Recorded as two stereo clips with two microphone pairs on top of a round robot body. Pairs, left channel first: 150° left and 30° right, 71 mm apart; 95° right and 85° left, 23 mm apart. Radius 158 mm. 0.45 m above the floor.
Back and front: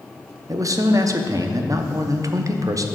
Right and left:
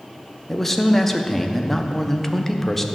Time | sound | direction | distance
0.5 | a man speaking | 15° right | 0.8 m